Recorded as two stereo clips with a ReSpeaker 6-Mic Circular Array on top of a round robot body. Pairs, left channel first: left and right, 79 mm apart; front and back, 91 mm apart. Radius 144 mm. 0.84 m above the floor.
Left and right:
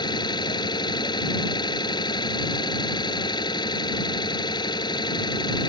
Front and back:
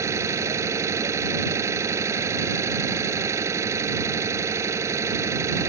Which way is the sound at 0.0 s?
120° left.